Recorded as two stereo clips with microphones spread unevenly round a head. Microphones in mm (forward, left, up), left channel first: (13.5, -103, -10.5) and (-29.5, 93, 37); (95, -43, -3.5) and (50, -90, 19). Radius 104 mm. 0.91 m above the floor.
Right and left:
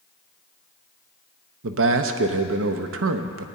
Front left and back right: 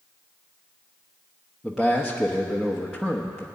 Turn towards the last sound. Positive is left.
turn(degrees=130)